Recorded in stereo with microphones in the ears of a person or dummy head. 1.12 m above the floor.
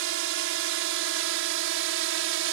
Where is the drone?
70° right (ahead or behind); by 2.5 s 65° right (ahead or behind).